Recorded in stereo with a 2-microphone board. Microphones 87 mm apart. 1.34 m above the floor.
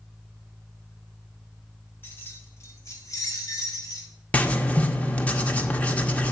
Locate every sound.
2.0 s keys jangling: 25° left (ahead or behind), 1.6 m; by 4.1 s 55° left (ahead or behind), 2 m
4.3 s writing: 15° left (ahead or behind), 0.8 m